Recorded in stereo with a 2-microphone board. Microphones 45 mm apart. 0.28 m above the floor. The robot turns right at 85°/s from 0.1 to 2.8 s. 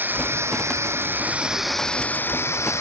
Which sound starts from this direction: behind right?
Running water, at 0.0 s.